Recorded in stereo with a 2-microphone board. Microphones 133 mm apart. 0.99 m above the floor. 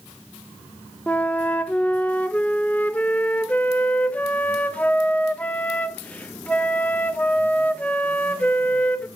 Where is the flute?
10° left (ahead or behind), 0.5 m.